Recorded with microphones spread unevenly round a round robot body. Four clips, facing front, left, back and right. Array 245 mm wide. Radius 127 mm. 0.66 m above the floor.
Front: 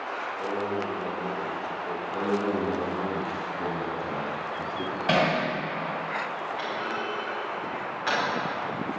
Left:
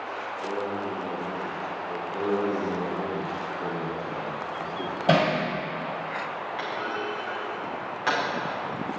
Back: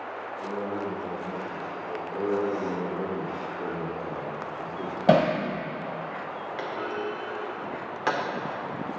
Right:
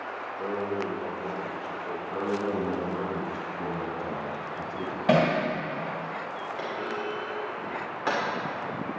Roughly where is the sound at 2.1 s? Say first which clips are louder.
Left 3 dB, even; ahead right.